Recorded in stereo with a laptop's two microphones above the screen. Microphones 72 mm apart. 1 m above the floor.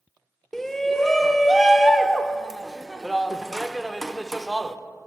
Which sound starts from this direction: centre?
A shout, at 0.5 s.